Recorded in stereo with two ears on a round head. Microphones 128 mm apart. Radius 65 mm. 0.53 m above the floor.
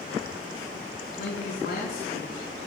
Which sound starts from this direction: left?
A man speaking, at 1.2 s.